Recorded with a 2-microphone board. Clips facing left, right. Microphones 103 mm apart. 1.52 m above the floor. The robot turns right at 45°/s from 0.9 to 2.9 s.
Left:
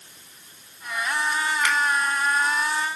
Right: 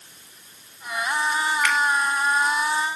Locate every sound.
1.6 s a finger snap: 25° left (ahead or behind), 7 m; by 1.8 s 15° left (ahead or behind), 7 m